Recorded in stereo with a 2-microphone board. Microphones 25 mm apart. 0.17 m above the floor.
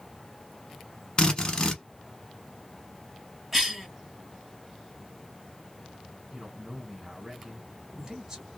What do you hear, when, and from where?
1.2 s a drill: 35° left (ahead or behind), 0.9 m
3.5 s a cough: 10° right (ahead or behind), 1.7 m
6.3 s a man speaking: 15° right (ahead or behind), 1.5 m